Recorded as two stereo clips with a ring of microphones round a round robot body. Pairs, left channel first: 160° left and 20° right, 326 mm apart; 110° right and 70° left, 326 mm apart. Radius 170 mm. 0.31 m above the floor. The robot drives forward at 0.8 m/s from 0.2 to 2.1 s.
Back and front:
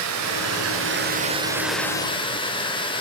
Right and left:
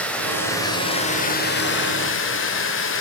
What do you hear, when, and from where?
0.0 s running water: 25° right, 1.4 m; by 3.0 s 135° right, 1.1 m